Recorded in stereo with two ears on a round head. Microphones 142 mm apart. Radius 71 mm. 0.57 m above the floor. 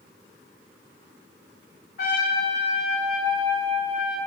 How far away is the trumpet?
About 1.0 m.